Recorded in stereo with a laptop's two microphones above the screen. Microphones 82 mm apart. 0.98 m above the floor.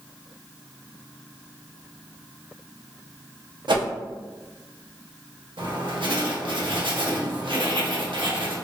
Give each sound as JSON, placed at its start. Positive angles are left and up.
{"t": 3.7, "sound": "a whoosh", "side_deg": -70, "distance_m": 0.8}
{"t": 5.6, "sound": "writing", "side_deg": -80, "distance_m": 0.8}